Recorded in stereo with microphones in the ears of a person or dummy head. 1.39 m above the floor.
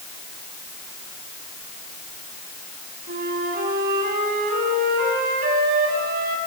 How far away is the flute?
About 4.5 m.